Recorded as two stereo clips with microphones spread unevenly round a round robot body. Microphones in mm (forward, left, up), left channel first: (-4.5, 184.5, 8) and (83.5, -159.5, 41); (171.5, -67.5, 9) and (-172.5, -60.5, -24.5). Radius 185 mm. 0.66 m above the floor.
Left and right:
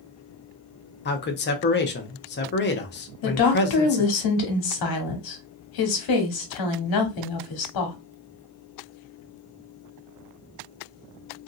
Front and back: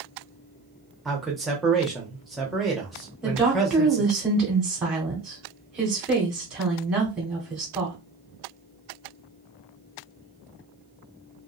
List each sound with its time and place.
1.1 s a man speaking: 95° left, 0.6 m
3.2 s a woman speaking: 95° left, 1.2 m